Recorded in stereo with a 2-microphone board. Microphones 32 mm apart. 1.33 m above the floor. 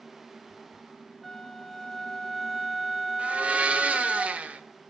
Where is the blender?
45° right (ahead or behind), 0.7 m.